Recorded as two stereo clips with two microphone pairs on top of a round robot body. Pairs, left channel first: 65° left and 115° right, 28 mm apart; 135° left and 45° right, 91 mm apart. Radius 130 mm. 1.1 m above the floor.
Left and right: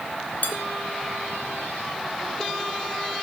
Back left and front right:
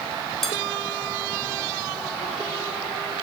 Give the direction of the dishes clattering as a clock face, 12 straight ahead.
10 o'clock.